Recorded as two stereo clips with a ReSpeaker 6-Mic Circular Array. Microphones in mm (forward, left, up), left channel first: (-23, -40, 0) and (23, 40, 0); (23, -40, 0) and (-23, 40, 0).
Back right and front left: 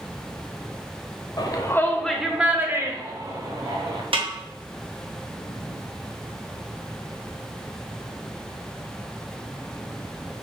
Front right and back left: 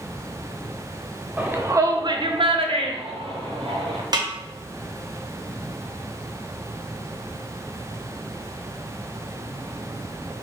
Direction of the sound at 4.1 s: 75° left.